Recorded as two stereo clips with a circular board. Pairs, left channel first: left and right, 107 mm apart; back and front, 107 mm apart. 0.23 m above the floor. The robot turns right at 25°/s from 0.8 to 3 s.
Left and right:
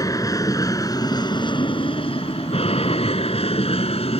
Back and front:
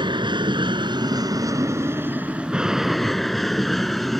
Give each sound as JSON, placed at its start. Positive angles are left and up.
{"t": 0.0, "sound": "an aircraft", "azimuth_deg": 35}